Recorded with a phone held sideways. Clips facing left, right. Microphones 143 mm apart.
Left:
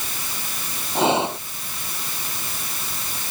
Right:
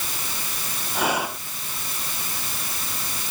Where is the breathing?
25° left (ahead or behind).